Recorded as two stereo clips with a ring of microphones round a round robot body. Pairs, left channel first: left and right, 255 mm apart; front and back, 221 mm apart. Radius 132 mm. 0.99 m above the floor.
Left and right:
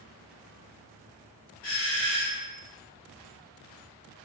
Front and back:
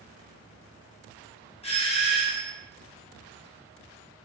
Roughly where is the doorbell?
Ahead left.